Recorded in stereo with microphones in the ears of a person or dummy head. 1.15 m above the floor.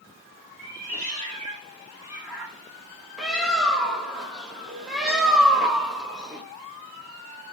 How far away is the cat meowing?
About 1.7 m.